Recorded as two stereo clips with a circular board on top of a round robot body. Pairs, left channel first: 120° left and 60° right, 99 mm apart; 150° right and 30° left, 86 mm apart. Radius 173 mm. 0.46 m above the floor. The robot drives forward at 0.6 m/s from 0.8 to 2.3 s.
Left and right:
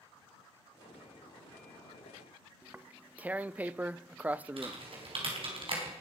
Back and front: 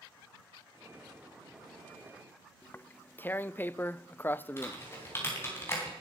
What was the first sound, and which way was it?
Tearing paper, 115° right.